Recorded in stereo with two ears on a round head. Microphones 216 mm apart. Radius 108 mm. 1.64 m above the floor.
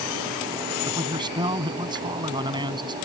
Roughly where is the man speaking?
Centre.